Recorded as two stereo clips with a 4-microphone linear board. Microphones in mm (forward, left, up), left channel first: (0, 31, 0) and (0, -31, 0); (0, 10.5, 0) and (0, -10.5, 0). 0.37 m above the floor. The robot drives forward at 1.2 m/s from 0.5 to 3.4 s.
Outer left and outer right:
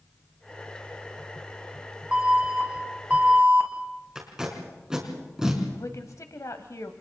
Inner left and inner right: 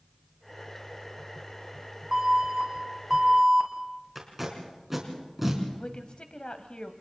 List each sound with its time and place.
2.1 s an alarm: 15° right (ahead or behind), 5 m; by 3.7 s 20° right (ahead or behind), 3.5 m
4.2 s tape being pulled: 10° right (ahead or behind), 4.5 m
5.7 s a woman speaking: 60° left (ahead or behind), 1.7 m